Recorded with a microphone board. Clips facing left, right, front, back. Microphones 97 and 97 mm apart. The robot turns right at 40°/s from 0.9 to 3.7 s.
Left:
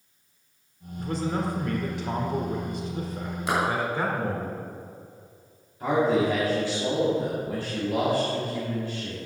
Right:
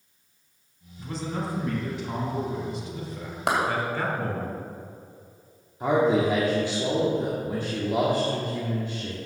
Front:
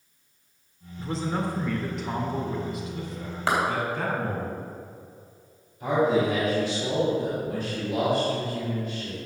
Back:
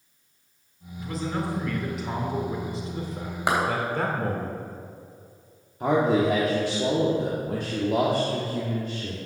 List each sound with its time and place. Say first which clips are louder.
1.0 s a man speaking: left 4 dB, front 1 dB; 50° left, 2.5 m; by 4.5 s 160° left, 2.5 m
3.5 s a clap: right 2 dB, back 1 dB; 105° right, 3.5 m; by 3.6 s 100° right, 3.5 m
5.8 s a man speaking: right 1 dB, back 1 dB; 155° right, 1.8 m